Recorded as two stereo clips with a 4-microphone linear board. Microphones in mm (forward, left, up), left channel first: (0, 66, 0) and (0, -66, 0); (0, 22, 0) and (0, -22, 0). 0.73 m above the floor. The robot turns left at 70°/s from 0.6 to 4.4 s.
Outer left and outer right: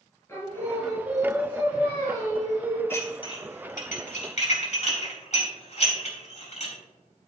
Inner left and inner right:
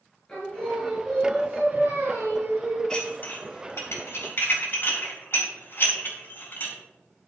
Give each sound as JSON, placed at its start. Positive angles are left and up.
{"t": 0.3, "sound": "singing", "azimuth_deg": 20, "distance_m": 5.0}
{"t": 2.9, "sound": "dishes clattering", "side_deg": 15, "distance_m": 4.0}